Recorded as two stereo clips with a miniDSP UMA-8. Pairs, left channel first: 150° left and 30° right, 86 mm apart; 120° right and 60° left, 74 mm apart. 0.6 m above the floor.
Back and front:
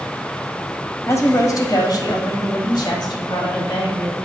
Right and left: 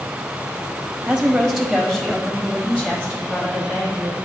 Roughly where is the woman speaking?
Behind left.